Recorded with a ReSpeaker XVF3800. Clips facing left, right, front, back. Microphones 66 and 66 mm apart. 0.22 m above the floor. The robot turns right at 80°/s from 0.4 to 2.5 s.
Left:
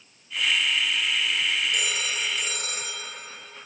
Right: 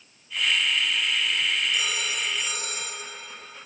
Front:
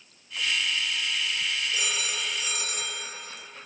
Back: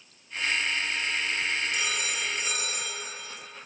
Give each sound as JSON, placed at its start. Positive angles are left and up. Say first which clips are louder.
{"t": 1.7, "sound": "a phone ringing", "louder": "even, back 1 dB", "azimuth_deg": 60, "distance_m": 3.5}